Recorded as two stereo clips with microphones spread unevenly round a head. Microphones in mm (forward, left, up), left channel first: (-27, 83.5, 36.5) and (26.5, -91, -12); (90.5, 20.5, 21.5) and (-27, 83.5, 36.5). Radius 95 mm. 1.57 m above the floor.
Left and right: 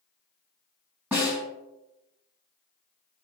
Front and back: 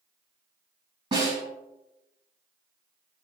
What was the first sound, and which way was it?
A snare drum, 165° right.